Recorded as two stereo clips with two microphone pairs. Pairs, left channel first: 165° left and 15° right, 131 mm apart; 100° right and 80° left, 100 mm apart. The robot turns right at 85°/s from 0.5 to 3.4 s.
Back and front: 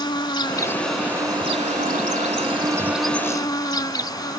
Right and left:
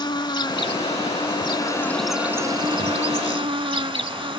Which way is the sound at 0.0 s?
140° right.